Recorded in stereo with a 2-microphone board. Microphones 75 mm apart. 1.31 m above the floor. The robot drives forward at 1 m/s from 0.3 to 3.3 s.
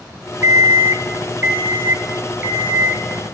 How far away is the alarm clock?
About 1.1 m.